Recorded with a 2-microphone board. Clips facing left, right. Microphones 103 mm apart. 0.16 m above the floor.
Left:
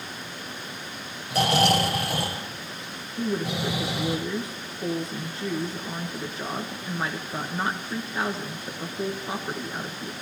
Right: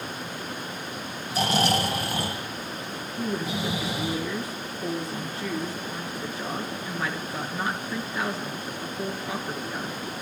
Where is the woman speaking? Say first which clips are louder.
Left 2 dB; 25° left (ahead or behind), 2 m.